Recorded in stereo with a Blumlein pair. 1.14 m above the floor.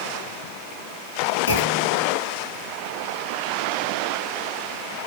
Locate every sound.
1.5 s a clunk: 65° left, 1.7 m